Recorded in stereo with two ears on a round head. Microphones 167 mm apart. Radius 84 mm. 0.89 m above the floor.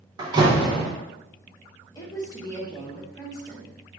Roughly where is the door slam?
Right.